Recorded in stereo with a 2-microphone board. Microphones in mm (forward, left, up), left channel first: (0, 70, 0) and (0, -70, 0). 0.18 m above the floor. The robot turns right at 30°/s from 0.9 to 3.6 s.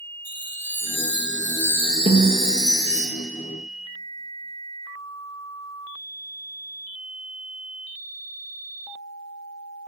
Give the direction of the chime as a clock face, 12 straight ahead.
9 o'clock.